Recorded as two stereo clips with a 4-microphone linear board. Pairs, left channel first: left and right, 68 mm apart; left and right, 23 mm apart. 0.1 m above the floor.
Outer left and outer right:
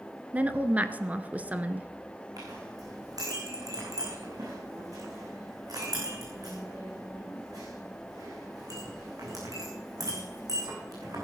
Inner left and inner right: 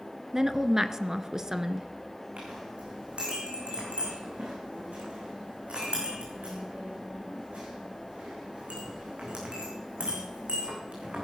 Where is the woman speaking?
20° right (ahead or behind), 1.1 m.